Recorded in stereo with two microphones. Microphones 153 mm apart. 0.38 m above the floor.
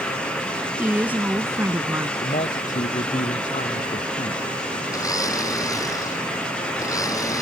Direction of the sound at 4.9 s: 20° left (ahead or behind).